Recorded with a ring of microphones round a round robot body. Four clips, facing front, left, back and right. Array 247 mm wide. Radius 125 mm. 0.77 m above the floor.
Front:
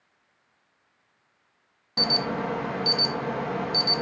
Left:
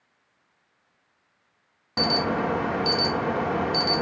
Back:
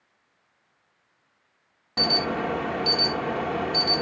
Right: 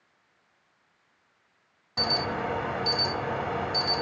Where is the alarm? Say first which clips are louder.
Left 5 dB, back 2 dB; 105° left, 0.9 m.